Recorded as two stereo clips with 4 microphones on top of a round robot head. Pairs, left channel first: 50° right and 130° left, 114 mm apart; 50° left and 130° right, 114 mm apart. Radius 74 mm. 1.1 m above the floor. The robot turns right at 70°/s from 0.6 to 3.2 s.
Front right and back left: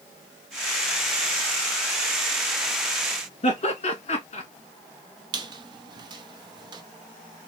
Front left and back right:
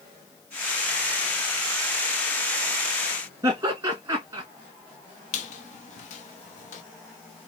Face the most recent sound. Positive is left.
turn(degrees=75)